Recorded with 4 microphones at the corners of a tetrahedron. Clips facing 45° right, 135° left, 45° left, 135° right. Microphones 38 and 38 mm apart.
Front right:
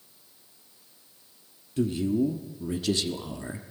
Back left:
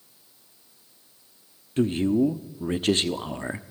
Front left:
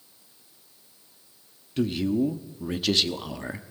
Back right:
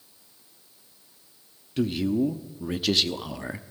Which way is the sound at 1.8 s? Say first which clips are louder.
Back left 4 dB, even; 135° left.